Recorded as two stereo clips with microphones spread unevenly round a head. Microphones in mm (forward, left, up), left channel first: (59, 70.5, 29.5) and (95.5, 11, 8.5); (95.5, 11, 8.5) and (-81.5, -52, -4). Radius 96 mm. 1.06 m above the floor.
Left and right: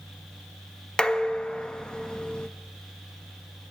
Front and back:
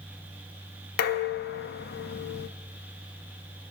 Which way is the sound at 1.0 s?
50° left.